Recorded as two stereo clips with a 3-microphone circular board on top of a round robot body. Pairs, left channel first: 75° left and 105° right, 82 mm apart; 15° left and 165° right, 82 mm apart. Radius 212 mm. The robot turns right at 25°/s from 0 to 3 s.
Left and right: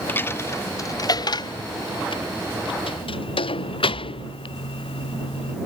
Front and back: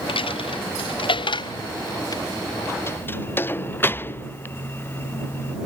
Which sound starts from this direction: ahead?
A dropped coin, at 0.1 s.